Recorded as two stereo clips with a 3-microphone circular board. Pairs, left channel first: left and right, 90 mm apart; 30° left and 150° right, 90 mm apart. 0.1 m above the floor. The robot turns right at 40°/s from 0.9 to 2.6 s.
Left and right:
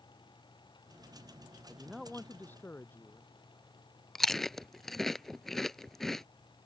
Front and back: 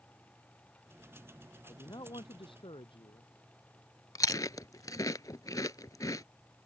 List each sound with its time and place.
1.6 s a man speaking: 15° right; by 3.3 s 25° left
4.2 s chewing: 5° left